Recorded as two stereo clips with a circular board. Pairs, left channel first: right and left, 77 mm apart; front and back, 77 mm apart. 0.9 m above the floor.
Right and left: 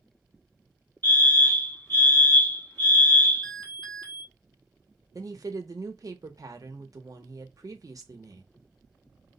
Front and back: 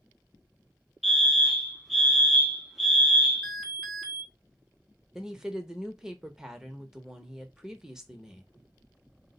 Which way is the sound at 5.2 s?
100° left.